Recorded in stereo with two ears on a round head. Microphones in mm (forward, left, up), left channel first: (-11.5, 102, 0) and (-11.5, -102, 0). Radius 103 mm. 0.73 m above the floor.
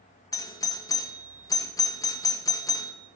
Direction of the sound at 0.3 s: 15° left (ahead or behind).